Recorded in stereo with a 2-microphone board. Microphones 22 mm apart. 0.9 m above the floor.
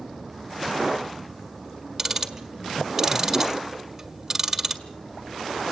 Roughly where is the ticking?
Centre.